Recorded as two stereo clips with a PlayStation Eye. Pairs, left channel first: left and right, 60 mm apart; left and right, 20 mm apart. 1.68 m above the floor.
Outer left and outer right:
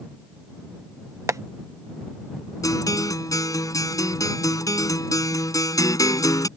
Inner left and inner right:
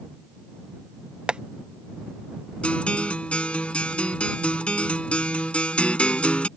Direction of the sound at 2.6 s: 70° left (ahead or behind).